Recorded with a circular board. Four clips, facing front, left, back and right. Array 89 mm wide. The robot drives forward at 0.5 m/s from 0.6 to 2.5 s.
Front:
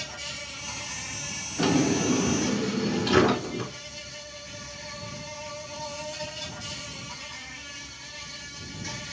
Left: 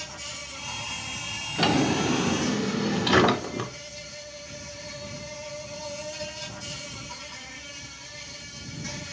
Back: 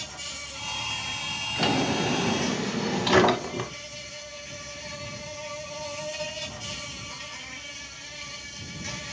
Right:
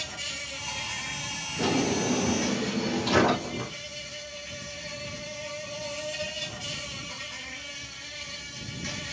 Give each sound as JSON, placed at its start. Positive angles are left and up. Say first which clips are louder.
{"t": 0.0, "sound": "an insect", "louder": "right 1 dB, front 2 dB", "azimuth_deg": -75, "distance_m": 1.0}
{"t": 1.6, "sound": "a drawer", "louder": "left 3 dB, front 2 dB", "azimuth_deg": 105, "distance_m": 0.5}